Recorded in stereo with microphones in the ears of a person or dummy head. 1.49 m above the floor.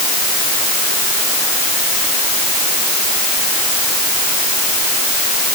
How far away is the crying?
I don't hear crying.